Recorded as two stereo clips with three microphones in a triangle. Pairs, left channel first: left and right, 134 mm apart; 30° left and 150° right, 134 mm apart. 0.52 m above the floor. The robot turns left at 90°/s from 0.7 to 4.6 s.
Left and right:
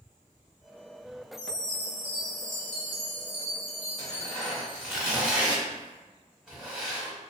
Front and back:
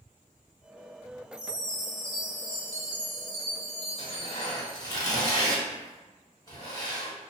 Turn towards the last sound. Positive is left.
turn(degrees=-10)